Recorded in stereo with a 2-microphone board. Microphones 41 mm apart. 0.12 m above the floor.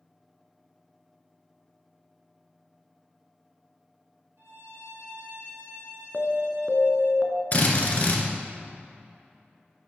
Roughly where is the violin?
Right.